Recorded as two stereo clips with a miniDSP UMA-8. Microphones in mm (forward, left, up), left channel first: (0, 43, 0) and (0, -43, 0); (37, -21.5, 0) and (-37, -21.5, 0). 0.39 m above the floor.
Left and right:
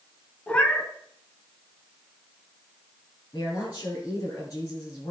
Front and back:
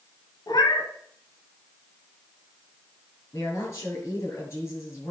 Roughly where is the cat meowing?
Ahead.